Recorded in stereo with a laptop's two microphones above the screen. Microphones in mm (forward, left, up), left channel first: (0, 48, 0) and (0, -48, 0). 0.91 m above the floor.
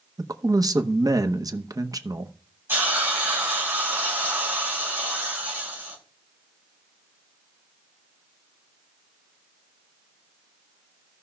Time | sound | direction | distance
0.2 | a man speaking | 40° right (ahead or behind) | 0.8 m
2.7 | a hiss | 20° right (ahead or behind) | 3.5 m